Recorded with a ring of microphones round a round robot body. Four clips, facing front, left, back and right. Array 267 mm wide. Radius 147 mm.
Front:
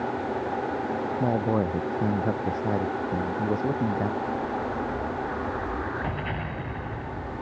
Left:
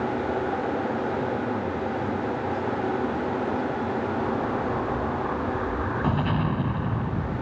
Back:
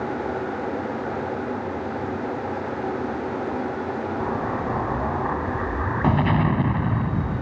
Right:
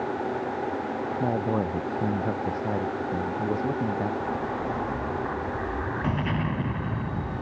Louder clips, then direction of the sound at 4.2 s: Left 3 dB, back 3 dB; 170° left.